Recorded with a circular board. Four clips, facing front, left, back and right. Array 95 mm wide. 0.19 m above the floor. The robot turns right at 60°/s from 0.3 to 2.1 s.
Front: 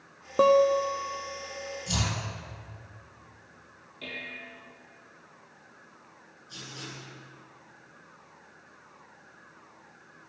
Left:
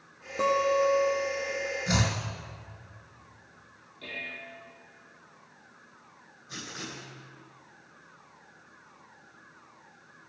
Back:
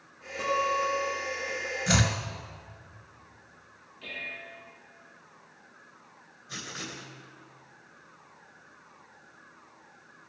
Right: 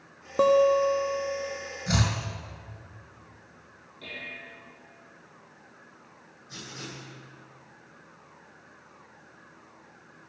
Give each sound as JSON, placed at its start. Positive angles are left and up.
{"t": 0.4, "sound": "a guitar", "azimuth_deg": -35, "distance_m": 1.2}
{"t": 1.9, "sound": "chopping", "azimuth_deg": 175, "distance_m": 1.8}
{"t": 4.0, "sound": "dishes clattering", "azimuth_deg": 0, "distance_m": 3.5}
{"t": 6.5, "sound": "writing", "azimuth_deg": 155, "distance_m": 2.0}